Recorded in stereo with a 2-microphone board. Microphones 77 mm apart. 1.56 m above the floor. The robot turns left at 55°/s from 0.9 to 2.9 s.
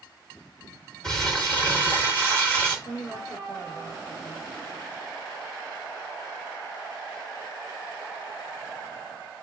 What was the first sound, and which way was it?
Crumpling, 10° left (ahead or behind).